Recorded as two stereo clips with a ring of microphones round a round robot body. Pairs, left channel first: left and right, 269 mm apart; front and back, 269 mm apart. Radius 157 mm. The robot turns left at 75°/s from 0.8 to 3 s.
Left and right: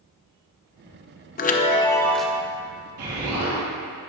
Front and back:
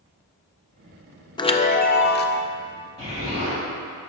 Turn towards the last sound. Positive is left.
turn(degrees=-115)